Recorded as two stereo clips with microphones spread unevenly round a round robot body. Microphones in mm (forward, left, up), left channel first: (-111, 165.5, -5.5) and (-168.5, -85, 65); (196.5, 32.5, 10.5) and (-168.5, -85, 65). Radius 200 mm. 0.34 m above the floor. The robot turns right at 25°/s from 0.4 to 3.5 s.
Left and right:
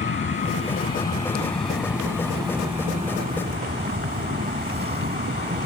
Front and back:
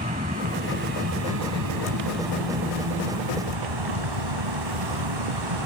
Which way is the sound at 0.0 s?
125° left.